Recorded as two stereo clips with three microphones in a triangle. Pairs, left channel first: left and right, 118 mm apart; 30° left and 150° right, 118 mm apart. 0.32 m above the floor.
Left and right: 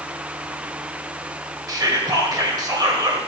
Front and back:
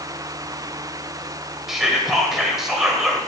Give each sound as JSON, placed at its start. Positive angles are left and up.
{"t": 1.7, "sound": "whispering", "azimuth_deg": -65, "distance_m": 1.5}